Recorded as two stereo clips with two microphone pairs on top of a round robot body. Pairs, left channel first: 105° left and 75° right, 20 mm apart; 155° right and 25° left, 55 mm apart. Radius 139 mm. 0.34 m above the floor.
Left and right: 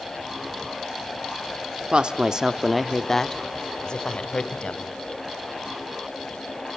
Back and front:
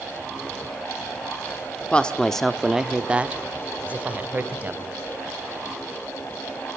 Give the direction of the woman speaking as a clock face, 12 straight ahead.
3 o'clock.